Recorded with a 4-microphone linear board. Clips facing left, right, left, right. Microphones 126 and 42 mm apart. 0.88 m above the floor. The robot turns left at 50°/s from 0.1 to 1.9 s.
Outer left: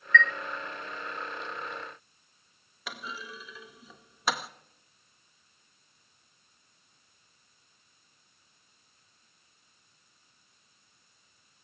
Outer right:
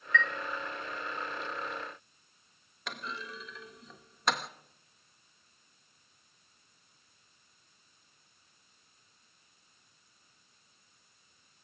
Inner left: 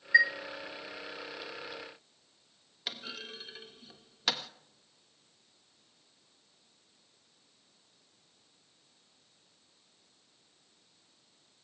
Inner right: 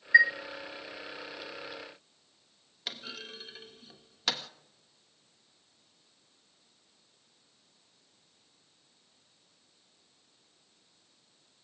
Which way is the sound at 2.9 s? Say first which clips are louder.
Even, even; 5° left (ahead or behind).